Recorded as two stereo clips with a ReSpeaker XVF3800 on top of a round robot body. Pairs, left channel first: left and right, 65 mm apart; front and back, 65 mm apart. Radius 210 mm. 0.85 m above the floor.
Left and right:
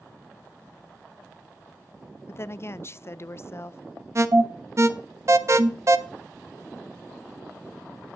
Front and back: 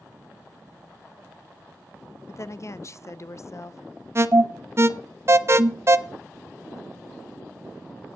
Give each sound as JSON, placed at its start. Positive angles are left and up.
{"t": 2.3, "sound": "a woman speaking", "azimuth_deg": 40, "distance_m": 0.7}
{"t": 4.2, "sound": "an alarm", "azimuth_deg": -135, "distance_m": 0.9}